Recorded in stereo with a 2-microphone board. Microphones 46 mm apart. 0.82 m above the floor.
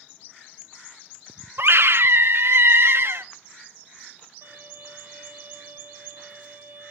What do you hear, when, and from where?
1.6 s a scream: 60° right (ahead or behind), 0.9 m
4.4 s a violin: 85° right, 5 m